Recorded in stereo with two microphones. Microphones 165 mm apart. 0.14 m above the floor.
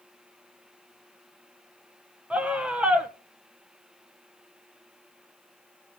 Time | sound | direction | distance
2.3 | a scream | 5° right (ahead or behind) | 1.1 m